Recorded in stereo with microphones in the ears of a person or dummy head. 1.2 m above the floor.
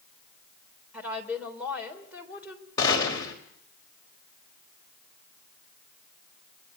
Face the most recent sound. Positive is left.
turn(degrees=20)  # may be behind; listen again after turning